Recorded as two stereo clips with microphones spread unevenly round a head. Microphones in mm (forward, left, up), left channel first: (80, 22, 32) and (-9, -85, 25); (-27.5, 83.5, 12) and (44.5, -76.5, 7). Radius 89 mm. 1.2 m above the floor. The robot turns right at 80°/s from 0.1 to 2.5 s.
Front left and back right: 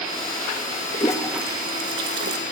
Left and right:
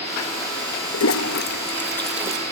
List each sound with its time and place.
0.9 s a toilet flushing: 110° left, 1.0 m; by 2.4 s 135° right, 1.0 m